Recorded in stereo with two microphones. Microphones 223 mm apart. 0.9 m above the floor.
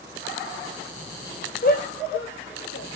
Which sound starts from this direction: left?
A shout, at 1.6 s.